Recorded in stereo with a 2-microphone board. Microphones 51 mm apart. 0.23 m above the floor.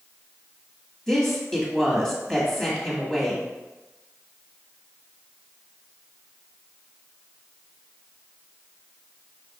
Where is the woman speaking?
10° left (ahead or behind), 1.6 m.